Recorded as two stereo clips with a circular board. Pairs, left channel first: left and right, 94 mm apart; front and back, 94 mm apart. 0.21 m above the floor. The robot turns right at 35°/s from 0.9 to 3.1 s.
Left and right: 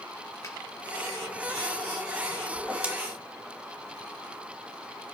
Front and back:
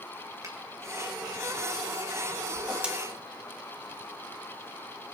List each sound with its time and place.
0.4 s a finger snap: 135° left, 3 m
2.5 s a whoosh: 140° right, 1.6 m; by 2.9 s 130° right, 1.6 m